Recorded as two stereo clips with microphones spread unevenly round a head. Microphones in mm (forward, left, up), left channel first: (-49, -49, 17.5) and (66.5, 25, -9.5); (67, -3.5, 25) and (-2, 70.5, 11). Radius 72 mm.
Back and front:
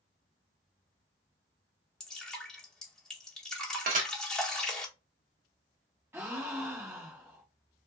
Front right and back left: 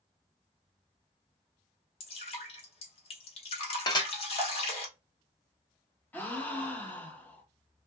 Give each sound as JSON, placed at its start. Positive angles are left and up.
{"t": 2.0, "sound": "dripping", "azimuth_deg": -55, "distance_m": 1.1}
{"t": 3.9, "sound": "dishes clattering", "azimuth_deg": 0, "distance_m": 0.8}
{"t": 6.1, "sound": "a gasp", "azimuth_deg": 20, "distance_m": 0.8}